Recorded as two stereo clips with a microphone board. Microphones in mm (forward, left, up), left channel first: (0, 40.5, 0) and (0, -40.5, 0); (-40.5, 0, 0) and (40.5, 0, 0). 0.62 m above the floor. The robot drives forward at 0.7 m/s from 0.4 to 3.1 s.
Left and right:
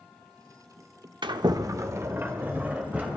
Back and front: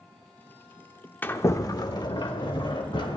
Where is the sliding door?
115° right, 0.6 m; by 3.2 s 160° right, 1.6 m.